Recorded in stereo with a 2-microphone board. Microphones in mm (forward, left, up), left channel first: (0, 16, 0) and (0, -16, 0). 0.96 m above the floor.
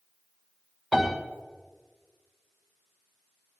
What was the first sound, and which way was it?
A piano, 20° left (ahead or behind).